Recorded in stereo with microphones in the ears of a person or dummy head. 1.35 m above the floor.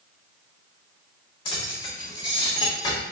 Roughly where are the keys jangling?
Left.